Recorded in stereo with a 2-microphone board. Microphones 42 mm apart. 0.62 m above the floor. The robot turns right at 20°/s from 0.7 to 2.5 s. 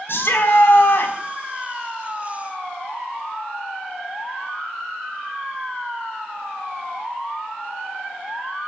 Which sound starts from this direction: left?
A shout, at 0.1 s.